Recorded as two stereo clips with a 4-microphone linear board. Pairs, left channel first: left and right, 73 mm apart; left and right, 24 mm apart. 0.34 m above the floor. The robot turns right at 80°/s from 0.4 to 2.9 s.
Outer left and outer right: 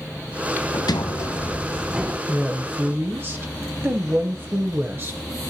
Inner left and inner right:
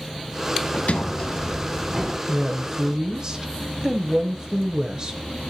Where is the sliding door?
90° left, 0.9 m; by 2.2 s 150° right, 0.9 m.